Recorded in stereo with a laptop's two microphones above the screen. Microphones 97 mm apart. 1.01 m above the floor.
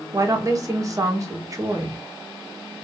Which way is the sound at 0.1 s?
35° right (ahead or behind).